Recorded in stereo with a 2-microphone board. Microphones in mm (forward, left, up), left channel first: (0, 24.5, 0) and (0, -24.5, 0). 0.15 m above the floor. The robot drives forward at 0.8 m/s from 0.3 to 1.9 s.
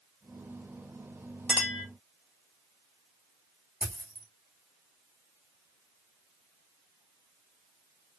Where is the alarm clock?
I don't hear an alarm clock.